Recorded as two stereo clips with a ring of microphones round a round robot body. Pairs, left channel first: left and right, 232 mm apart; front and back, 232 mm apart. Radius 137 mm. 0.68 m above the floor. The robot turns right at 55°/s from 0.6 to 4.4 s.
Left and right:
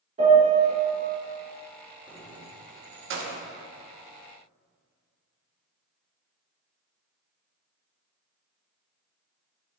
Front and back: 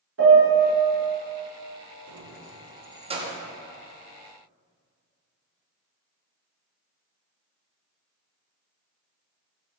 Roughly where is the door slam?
No door slam in this recording.